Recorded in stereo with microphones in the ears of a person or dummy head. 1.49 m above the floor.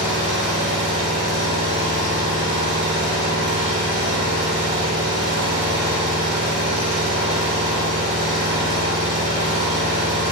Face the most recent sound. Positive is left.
turn(degrees=-30)  # may be behind; listen again after turning